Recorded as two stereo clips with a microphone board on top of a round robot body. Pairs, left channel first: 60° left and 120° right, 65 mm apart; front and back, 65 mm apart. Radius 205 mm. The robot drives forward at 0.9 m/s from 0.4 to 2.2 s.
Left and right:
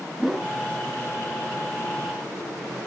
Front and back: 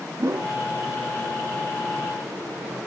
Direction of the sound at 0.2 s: 150° left.